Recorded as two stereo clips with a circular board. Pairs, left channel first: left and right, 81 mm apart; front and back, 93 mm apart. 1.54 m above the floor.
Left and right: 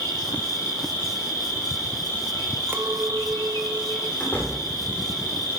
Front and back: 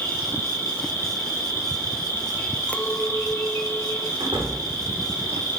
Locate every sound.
0.0 s an insect: 55° left, 2.5 m
2.7 s a clink: 60° right, 0.6 m
4.2 s a door slam: 155° left, 3 m